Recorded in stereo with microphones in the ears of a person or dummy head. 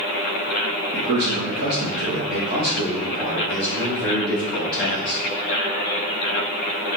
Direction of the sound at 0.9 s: 80° right.